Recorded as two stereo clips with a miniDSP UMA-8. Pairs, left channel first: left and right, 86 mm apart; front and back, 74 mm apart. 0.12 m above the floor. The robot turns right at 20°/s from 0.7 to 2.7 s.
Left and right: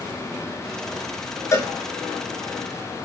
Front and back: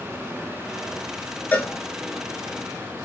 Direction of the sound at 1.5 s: 55° left.